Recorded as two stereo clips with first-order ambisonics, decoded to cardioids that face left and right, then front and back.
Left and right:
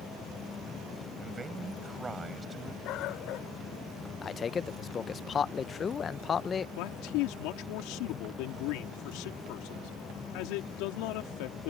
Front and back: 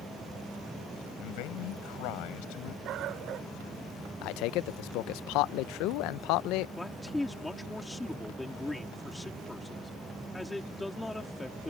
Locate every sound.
1.2 s a man speaking: 15° right
2.9 s a dog barking: 130° left
4.2 s a man speaking: 25° left
6.8 s a man speaking: 85° left